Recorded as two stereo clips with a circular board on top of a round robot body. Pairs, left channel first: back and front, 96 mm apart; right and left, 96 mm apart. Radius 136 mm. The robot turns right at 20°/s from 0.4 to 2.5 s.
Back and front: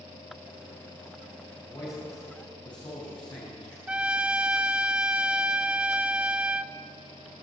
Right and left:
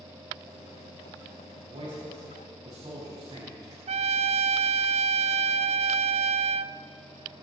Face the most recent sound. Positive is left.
turn(degrees=80)